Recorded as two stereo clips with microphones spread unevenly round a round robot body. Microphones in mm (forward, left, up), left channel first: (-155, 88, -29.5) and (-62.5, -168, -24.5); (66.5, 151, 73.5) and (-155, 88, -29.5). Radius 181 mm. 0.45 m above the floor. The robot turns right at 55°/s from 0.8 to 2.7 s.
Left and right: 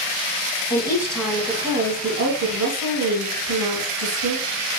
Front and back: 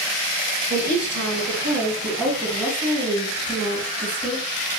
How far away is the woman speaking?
About 2 m.